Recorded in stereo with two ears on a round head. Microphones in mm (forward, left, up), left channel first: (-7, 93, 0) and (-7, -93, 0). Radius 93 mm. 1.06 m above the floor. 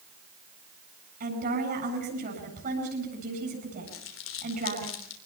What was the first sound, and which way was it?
A woman speaking, 45° right (ahead or behind).